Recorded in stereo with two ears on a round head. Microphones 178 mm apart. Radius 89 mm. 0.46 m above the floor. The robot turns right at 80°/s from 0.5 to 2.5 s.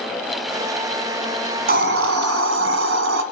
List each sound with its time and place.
1.7 s a hiss: 130° right, 1.5 m; by 3.2 s 60° right, 1.5 m